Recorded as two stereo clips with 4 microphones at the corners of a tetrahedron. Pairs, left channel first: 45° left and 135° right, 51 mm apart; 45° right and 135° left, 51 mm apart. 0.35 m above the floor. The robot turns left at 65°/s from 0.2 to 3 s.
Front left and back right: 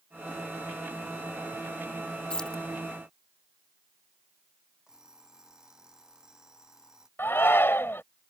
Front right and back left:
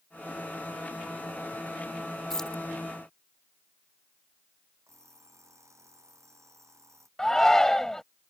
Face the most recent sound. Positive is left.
turn(degrees=30)